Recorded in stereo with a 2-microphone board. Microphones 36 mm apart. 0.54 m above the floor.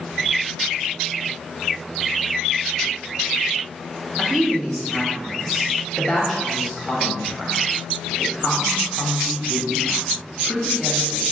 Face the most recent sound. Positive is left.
turn(degrees=5)  # may be behind; listen again after turning